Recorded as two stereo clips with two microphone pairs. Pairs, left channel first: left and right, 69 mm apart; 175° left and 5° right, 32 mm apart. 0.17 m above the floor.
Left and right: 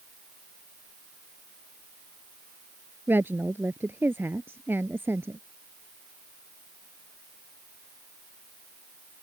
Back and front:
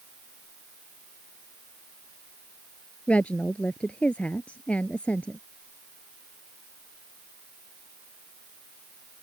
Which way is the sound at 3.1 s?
145° right.